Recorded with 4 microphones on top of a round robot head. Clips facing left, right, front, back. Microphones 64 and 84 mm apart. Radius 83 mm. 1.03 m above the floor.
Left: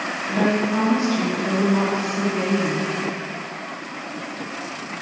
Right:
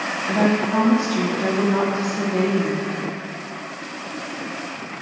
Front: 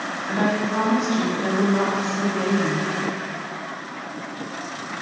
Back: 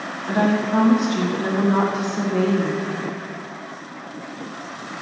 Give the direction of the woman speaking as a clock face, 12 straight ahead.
5 o'clock.